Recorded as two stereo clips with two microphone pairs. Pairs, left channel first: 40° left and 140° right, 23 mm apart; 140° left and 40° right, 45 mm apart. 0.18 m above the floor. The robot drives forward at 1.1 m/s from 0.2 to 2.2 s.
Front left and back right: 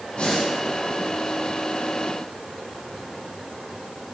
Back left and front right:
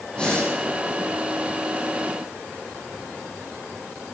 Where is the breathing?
75° left, 8.5 m.